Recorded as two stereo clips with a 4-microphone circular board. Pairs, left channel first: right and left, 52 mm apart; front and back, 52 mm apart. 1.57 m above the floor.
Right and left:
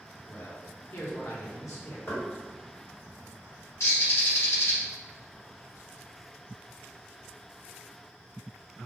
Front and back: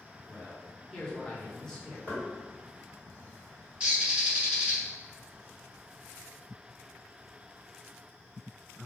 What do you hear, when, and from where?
0.3 s a man speaking: 75° right, 1.0 m
2.1 s knocking: 55° right, 1.6 m
3.8 s a bird: 110° right, 1.0 m